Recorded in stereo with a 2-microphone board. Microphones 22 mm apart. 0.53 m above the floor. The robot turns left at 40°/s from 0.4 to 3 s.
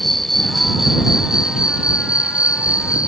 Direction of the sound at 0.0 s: 15° left.